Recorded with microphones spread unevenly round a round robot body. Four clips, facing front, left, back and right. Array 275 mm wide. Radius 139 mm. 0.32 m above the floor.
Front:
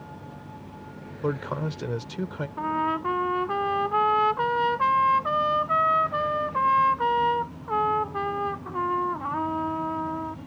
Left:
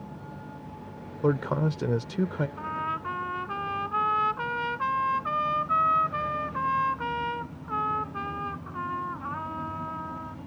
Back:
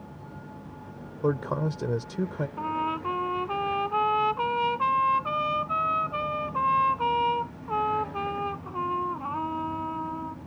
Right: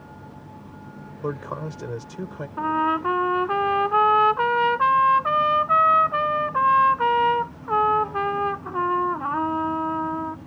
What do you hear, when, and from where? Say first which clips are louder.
1.2 s a man speaking: left 4 dB, back 2 dB; 120° left
2.6 s a trumpet: right 10 dB, front 4 dB; 75° right